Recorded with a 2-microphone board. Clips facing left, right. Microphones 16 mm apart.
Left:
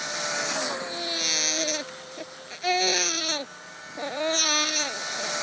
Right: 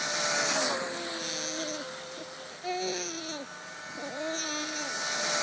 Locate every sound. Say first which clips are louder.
0.8 s a baby crying: left 6 dB; 45° left (ahead or behind)